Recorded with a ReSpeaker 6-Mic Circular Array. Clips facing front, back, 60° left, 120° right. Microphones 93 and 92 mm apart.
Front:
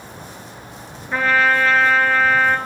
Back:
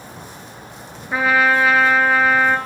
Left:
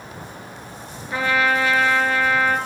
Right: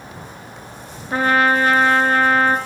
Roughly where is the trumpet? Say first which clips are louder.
Back 1 dB, right 4 dB; right.